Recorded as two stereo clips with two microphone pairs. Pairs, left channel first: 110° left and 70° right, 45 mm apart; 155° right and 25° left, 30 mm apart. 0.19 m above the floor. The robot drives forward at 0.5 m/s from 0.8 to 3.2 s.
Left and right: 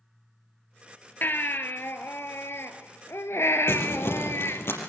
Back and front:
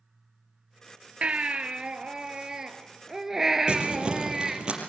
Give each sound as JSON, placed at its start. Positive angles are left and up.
{"t": 1.2, "sound": "a baby crying", "azimuth_deg": 70, "distance_m": 1.9}
{"t": 3.7, "sound": "crumpling", "azimuth_deg": 85, "distance_m": 5.0}